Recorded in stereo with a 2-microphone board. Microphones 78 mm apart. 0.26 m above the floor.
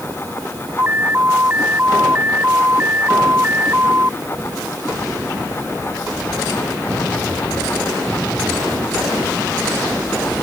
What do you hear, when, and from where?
0.8 s an alarm: 25° right (ahead or behind)